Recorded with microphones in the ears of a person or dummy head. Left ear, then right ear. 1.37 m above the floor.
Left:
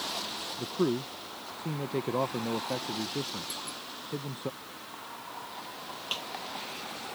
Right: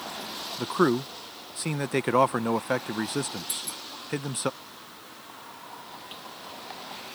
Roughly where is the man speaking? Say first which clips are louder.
Right 7 dB; right.